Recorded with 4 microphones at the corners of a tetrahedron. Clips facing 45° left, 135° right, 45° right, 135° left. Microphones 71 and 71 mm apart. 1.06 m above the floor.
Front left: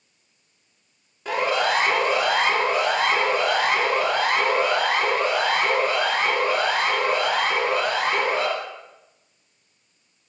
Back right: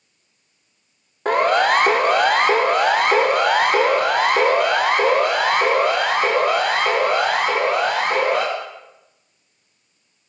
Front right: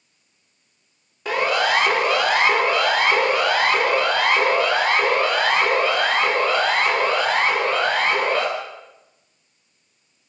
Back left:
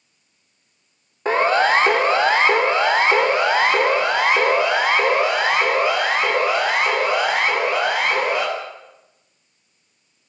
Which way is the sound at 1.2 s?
170° right.